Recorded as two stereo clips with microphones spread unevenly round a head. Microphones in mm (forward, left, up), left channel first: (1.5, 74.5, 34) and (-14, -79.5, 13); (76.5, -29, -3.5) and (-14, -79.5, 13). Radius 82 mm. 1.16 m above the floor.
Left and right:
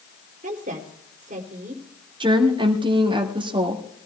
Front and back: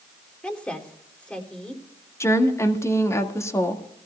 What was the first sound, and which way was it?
A woman speaking, 50° right.